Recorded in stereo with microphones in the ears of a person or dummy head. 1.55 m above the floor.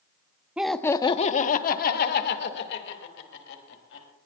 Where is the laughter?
5° right (ahead or behind), 0.7 m; by 4.0 s 70° left (ahead or behind), 3.5 m.